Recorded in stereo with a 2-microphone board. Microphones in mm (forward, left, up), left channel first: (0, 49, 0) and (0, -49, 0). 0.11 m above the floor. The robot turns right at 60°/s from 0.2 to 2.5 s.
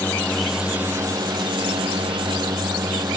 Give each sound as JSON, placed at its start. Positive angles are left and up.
{"t": 0.0, "sound": "a drone", "side_deg": 15}